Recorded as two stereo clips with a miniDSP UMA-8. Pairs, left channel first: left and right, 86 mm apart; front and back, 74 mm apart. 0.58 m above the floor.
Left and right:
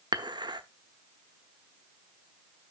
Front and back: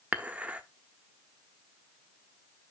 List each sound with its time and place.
0.1 s dishes clattering: 110° right, 1.0 m